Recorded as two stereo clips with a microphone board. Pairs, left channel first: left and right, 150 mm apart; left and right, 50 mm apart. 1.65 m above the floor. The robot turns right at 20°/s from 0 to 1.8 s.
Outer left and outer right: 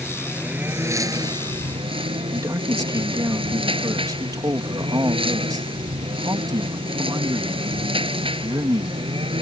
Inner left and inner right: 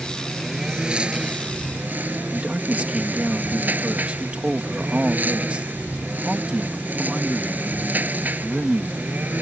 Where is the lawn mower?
Straight behind; by 9.4 s 145° right.